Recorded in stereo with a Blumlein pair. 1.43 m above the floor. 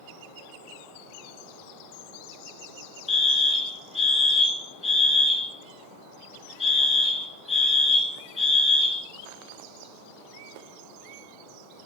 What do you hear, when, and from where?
3.1 s a fire alarm: 10° left, 2 m